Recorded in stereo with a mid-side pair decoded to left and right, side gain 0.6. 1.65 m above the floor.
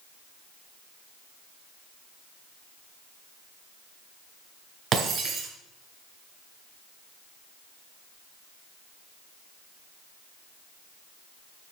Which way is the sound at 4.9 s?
40° right.